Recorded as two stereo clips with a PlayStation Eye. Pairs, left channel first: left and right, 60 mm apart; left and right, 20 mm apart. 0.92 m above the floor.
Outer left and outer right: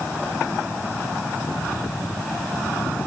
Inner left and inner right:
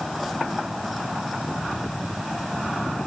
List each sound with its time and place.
Only background noise.